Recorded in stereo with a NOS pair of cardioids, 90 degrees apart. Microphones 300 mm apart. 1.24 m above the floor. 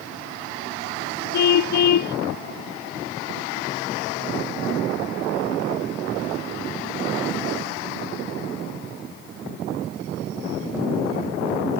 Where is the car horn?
70° left.